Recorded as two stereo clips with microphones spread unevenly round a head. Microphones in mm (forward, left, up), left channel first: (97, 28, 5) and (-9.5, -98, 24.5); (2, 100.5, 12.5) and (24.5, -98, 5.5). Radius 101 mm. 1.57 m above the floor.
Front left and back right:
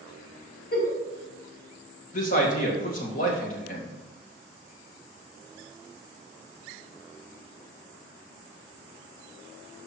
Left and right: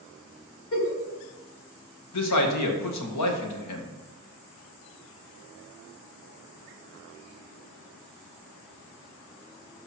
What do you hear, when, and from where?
0.7 s a giggle: 95° left, 3 m
2.1 s a man speaking: 105° left, 1.8 m